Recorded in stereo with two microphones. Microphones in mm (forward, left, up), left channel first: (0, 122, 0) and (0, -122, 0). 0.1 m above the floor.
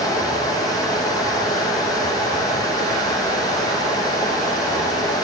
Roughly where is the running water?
Centre.